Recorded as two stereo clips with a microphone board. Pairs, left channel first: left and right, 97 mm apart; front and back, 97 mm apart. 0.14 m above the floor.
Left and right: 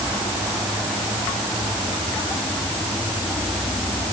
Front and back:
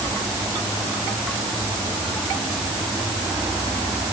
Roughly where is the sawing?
I don't hear sawing.